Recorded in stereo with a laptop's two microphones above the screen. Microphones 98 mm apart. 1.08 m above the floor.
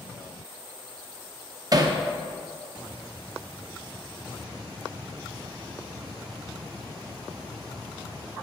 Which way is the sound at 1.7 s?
40° right (ahead or behind).